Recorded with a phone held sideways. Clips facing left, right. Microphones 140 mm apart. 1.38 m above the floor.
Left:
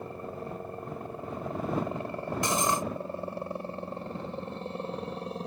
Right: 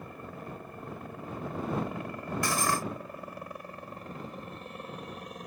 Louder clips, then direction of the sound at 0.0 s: Left 5 dB; 30° left (ahead or behind).